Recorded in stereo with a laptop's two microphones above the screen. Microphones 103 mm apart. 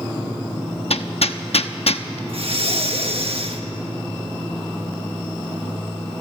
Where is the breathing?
65° right (ahead or behind), 1.7 m.